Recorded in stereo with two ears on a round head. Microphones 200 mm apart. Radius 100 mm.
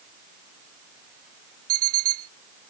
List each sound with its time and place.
1.7 s an alarm clock: 70° right (ahead or behind)